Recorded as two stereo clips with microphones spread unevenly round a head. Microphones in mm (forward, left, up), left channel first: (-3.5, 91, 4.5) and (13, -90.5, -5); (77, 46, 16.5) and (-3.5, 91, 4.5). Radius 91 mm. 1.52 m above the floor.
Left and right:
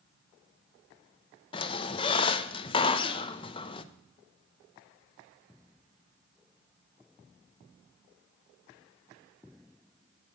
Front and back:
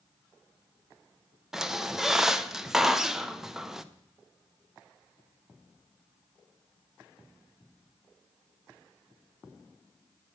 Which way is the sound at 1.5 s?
60° left.